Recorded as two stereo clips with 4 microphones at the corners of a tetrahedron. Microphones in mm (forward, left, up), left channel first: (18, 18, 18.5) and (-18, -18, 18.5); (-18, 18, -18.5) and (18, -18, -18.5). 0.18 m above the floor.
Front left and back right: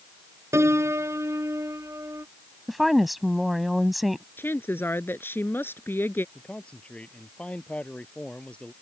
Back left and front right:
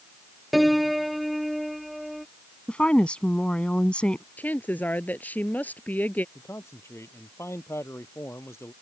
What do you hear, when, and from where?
0.5 s a piano: 135° right
2.7 s a woman speaking: 135° left
4.4 s a woman speaking: 85° left
6.3 s a man speaking: 110° left